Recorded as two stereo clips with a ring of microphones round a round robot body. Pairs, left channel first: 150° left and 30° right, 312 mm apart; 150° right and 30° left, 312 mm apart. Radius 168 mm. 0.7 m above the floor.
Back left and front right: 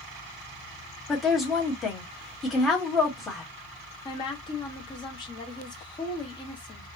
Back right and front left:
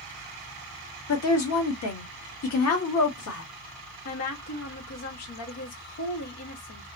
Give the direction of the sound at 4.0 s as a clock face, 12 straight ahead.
5 o'clock.